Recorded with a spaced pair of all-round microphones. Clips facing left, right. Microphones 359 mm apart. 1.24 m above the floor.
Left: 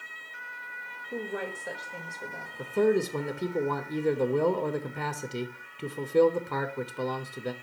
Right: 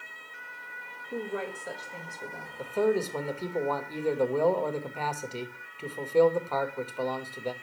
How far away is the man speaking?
About 0.8 m.